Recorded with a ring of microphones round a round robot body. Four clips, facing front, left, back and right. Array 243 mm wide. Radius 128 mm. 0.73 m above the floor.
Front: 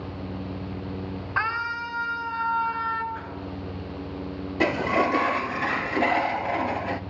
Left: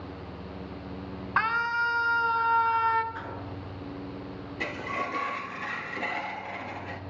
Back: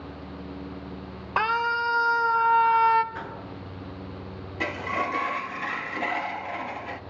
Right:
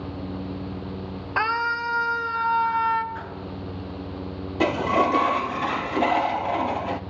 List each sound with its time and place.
1.4 s a scream: 140° right, 4 m; by 3.0 s straight behind, 4 m
3.1 s a whoosh: 175° left, 8 m
4.6 s a sliding door: 55° right, 0.8 m